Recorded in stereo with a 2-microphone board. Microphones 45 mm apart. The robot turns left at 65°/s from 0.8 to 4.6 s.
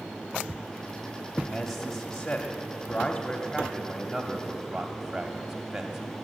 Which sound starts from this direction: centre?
A man speaking, at 1.5 s.